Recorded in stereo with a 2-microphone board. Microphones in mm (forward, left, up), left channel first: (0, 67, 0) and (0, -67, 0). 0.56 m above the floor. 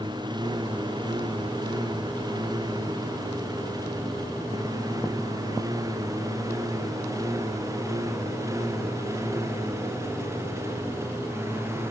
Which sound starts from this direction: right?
A lawn mower, at 0.0 s.